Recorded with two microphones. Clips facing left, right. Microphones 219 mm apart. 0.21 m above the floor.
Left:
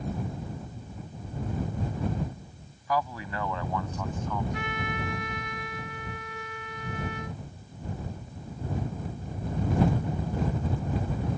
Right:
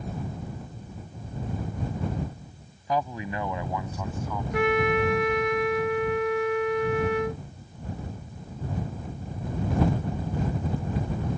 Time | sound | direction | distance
2.9 | a man speaking | 20° right (ahead or behind) | ?
4.5 | a trumpet | 70° right (ahead or behind) | ?